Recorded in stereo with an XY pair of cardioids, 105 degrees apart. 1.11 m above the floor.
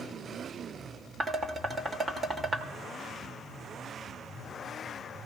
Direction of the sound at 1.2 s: 35° right.